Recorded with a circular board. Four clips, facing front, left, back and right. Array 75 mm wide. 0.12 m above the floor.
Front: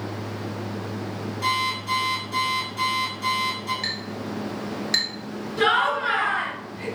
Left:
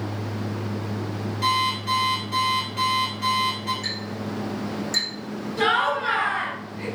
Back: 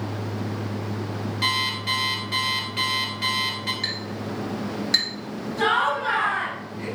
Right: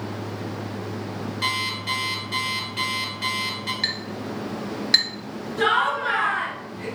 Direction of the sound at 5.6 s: 60° left.